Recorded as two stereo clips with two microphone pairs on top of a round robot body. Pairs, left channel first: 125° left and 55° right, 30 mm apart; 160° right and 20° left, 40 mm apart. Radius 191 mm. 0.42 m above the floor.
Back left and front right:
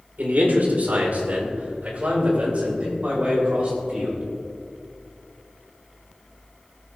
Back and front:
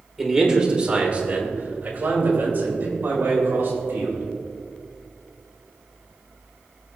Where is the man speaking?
65° right, 2 m; by 4.2 s 5° right, 6.5 m.